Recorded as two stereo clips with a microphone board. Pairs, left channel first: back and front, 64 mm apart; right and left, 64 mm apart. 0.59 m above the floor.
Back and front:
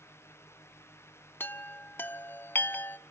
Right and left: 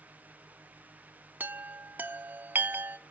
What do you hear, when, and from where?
1.4 s a chime: 140° left, 0.6 m